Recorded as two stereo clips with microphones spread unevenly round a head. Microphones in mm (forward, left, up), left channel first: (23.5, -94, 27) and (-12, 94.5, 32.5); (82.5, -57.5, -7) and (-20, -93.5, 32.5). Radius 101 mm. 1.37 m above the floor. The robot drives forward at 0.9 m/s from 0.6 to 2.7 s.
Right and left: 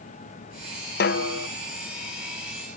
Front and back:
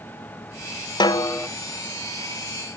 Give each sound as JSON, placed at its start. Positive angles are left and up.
{"t": 1.0, "sound": "a snare drum", "azimuth_deg": -40, "distance_m": 0.8}